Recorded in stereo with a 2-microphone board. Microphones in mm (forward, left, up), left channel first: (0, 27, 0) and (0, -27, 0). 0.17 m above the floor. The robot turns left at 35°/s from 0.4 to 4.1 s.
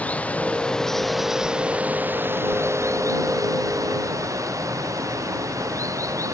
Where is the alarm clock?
I don't hear an alarm clock.